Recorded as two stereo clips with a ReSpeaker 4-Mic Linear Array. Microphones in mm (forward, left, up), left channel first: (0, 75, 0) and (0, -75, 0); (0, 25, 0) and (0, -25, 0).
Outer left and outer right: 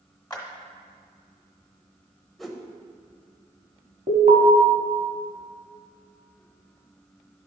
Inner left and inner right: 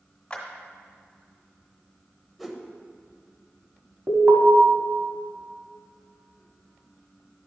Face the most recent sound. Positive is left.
turn(degrees=-60)  # may be behind; listen again after turning